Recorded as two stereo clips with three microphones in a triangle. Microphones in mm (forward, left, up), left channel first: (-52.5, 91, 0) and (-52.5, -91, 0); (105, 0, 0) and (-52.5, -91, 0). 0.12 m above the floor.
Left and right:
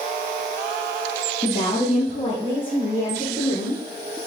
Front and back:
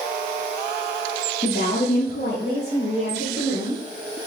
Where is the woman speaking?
55° left, 2.5 m; by 4.2 s 35° left, 5.5 m.